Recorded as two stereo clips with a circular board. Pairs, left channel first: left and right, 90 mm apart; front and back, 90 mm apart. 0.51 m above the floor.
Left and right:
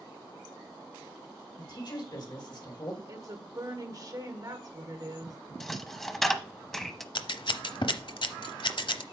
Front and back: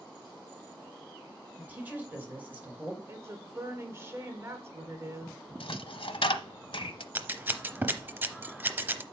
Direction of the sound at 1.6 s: 110° left.